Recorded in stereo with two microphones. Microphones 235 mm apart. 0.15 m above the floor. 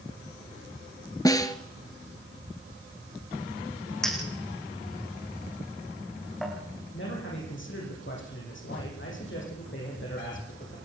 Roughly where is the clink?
Centre.